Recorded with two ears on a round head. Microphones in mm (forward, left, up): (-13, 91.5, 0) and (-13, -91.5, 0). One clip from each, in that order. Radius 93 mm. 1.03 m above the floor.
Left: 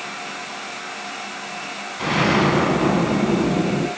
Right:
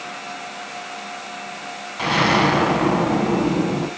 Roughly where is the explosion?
Right.